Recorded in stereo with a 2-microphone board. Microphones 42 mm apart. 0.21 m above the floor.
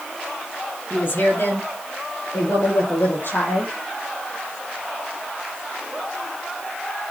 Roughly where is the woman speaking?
Left.